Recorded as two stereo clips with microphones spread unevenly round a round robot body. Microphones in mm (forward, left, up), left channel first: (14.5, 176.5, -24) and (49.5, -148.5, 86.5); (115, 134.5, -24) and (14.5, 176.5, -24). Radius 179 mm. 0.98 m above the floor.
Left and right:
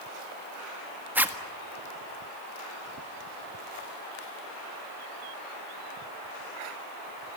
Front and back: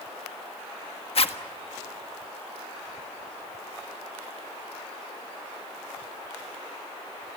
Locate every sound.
1.1 s a zipper: 5° left, 1.5 m